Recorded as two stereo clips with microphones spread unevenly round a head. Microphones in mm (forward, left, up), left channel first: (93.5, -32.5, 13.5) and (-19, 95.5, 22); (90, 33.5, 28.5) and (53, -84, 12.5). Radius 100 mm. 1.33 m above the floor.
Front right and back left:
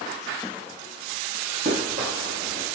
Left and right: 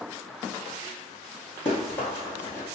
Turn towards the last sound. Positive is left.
turn(degrees=135)